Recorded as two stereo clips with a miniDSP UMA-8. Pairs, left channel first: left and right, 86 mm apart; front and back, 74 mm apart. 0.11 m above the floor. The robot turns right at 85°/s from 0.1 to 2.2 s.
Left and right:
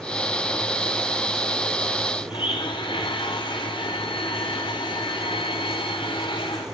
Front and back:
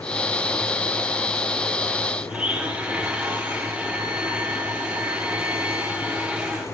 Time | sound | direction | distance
2.3 | a blender | 110° left | 4.5 m